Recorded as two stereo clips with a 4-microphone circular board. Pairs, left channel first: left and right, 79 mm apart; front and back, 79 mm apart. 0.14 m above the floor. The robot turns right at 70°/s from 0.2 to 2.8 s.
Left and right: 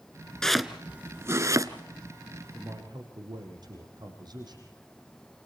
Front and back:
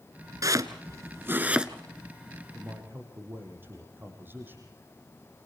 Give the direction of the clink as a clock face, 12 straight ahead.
I don't hear a clink.